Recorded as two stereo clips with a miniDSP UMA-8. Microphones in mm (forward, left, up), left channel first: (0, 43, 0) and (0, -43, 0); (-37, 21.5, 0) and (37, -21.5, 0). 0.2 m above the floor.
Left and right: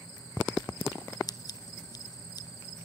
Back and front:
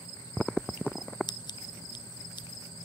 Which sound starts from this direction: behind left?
Scissors, at 1.3 s.